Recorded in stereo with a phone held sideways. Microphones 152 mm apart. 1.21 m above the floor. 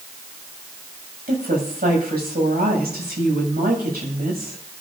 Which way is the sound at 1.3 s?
90° right.